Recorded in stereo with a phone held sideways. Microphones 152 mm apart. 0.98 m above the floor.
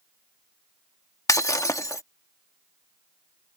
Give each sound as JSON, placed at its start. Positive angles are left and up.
{"t": 1.3, "sound": "breaking glass", "side_deg": 20}